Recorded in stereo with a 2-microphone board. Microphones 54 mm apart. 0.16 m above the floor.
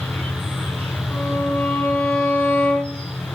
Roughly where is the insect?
Left.